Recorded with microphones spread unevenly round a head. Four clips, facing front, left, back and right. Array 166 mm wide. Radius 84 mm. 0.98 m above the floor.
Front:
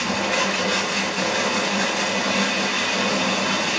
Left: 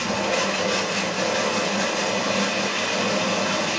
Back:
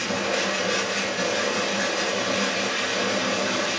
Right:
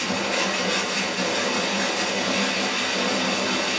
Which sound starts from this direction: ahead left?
Running water, at 0.0 s.